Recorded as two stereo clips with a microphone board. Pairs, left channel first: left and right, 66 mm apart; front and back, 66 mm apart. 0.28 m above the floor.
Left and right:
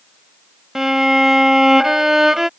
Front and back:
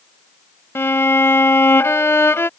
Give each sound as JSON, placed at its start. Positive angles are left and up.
{"t": 0.8, "sound": "a violin", "azimuth_deg": -10}